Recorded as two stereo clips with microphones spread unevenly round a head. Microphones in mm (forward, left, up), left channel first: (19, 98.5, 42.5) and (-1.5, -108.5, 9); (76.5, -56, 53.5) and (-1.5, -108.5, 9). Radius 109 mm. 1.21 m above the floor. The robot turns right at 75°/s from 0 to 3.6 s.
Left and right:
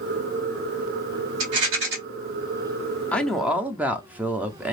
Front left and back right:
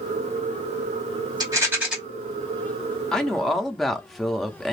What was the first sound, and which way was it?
A rattle, 90° right.